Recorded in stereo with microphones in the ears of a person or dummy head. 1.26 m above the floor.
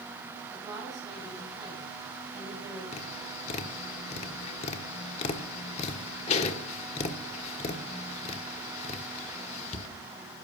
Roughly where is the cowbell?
I don't hear a cowbell.